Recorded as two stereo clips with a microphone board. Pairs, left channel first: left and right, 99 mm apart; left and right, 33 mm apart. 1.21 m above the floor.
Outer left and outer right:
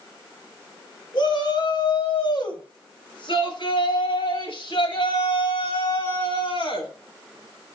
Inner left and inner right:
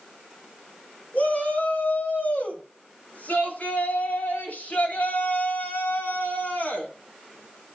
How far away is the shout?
About 7.5 m.